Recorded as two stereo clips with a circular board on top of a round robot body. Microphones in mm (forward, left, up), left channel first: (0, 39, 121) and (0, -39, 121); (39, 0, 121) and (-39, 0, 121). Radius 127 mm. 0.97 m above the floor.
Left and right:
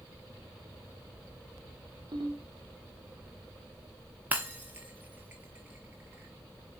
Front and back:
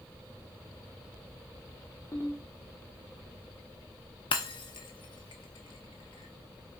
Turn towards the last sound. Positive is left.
turn(degrees=-20)